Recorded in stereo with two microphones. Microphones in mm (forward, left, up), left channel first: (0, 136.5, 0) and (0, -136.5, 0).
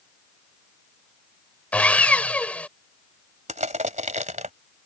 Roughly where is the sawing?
Centre.